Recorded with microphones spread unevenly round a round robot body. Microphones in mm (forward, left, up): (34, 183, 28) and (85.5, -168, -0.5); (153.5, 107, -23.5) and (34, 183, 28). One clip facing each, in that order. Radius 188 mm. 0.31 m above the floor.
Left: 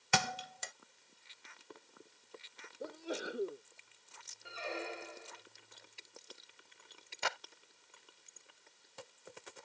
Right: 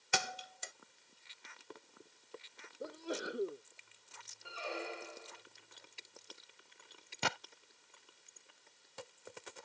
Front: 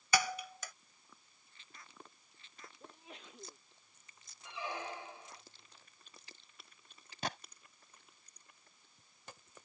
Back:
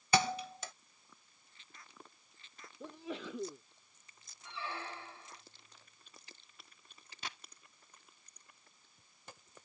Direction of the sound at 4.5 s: 5° left.